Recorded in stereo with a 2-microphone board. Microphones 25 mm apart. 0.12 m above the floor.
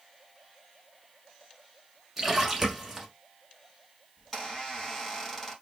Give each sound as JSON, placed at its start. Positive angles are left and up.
{"t": 2.2, "sound": "a splash", "side_deg": -5, "distance_m": 0.9}
{"t": 4.2, "sound": "a squeak", "side_deg": 15, "distance_m": 1.7}